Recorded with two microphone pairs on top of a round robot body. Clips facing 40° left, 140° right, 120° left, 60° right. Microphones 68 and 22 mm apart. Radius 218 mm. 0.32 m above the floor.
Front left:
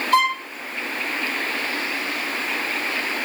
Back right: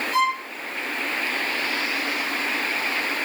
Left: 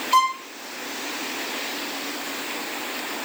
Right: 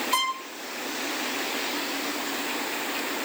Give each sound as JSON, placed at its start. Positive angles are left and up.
{"t": 0.1, "sound": "a violin", "azimuth_deg": 50, "distance_m": 7.0}